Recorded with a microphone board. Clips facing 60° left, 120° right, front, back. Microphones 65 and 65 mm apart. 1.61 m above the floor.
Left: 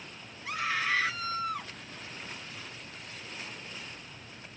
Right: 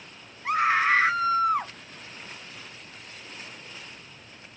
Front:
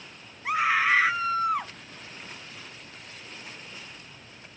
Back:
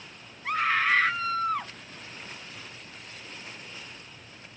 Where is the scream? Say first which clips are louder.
Right 9 dB, front 2 dB; 80° right.